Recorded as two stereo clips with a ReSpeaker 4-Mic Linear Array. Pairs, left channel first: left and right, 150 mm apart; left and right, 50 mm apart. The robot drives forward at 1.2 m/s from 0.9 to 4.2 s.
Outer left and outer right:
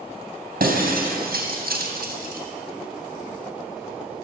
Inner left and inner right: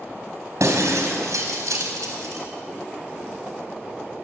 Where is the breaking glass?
75° right (ahead or behind), 4 m.